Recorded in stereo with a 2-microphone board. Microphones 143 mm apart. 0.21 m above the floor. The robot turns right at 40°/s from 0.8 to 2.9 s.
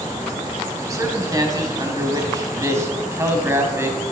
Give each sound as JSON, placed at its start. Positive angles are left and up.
{"t": 0.9, "sound": "a man speaking", "side_deg": -20, "distance_m": 1.2}